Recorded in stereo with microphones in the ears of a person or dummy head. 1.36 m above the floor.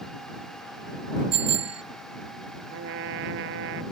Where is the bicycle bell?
35° right (ahead or behind).